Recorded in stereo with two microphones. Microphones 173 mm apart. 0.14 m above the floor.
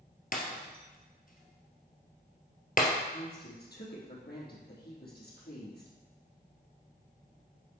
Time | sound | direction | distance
0.3 | breaking glass | 55° left (ahead or behind) | 1.7 m
3.1 | a woman speaking | 70° left (ahead or behind) | 4 m